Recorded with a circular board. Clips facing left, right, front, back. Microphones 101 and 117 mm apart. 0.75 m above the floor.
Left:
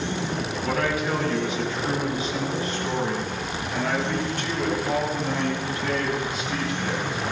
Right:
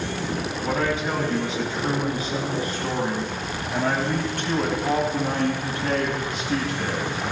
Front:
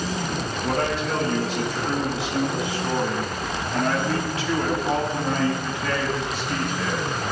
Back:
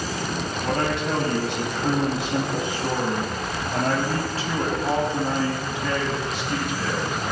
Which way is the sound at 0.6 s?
155° right.